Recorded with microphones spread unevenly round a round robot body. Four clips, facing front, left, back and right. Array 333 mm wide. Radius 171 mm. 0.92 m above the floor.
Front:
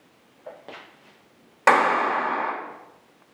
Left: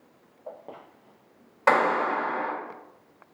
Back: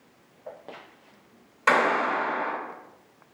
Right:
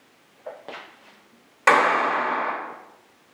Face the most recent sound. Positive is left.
turn(degrees=-5)